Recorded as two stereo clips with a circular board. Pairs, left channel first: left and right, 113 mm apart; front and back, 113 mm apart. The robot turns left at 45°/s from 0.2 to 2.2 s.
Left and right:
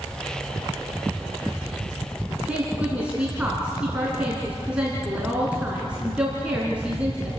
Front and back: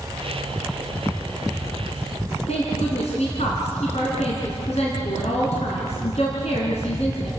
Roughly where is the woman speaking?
Ahead.